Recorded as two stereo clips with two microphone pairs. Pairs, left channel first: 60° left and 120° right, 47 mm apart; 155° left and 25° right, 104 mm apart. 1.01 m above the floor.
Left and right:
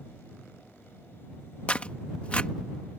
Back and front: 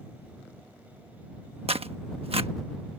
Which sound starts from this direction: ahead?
Tearing paper, at 1.7 s.